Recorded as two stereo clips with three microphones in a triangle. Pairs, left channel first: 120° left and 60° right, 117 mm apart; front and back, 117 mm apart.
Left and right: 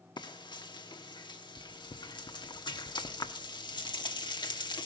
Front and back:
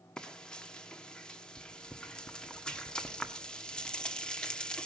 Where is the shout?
No shout in this recording.